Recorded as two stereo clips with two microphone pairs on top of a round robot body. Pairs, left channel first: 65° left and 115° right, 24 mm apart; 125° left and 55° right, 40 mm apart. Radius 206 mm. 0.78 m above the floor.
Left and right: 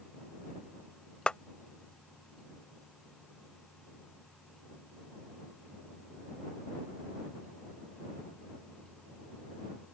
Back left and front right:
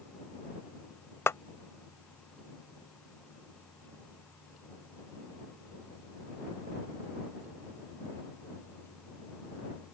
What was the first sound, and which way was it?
A clap, 115° left.